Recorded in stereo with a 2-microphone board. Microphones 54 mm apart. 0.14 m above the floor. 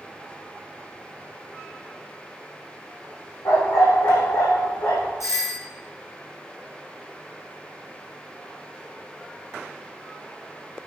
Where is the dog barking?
80° left, 3 m.